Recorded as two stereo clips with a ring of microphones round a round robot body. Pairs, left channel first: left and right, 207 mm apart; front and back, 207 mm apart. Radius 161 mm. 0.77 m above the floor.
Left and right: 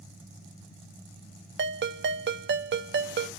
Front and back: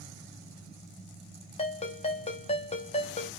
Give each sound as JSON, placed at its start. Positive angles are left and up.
{"t": 1.6, "sound": "a ringtone", "azimuth_deg": -65, "distance_m": 1.0}